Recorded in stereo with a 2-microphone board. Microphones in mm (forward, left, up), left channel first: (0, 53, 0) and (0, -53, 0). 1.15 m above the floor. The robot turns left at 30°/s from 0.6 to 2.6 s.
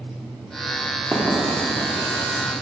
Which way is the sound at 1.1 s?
20° right (ahead or behind).